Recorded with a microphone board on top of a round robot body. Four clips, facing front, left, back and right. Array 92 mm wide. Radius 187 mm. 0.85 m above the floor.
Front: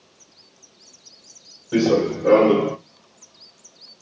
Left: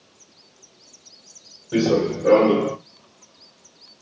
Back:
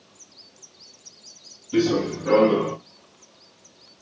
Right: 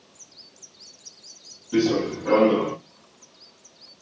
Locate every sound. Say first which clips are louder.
1.7 s running footsteps: left 2 dB, front 3 dB; 45° left, 2.5 m; by 2.8 s 50° left, 1.4 m